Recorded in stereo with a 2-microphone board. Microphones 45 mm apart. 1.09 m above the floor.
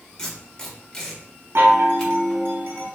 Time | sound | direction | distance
0.2 | tape being pulled | 15° left (ahead or behind) | 1.6 m
1.6 | a chime | 55° right (ahead or behind) | 1.0 m